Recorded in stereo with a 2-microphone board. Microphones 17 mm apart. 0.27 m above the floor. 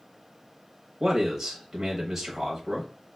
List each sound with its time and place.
1.0 s a man speaking: 25° right (ahead or behind), 0.9 m